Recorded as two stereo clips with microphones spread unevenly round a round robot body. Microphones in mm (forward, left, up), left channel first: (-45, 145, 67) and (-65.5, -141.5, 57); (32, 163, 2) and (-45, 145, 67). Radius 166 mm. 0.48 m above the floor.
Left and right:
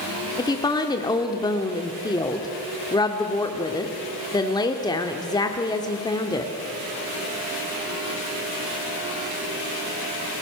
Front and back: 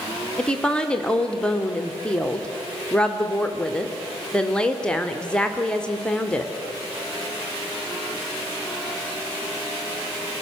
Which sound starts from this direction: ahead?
A woman speaking, at 0.4 s.